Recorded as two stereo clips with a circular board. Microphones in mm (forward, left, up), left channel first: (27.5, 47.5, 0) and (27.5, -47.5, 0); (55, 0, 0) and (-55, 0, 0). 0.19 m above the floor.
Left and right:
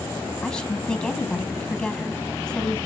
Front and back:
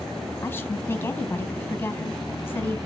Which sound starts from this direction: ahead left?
A woman speaking, at 0.4 s.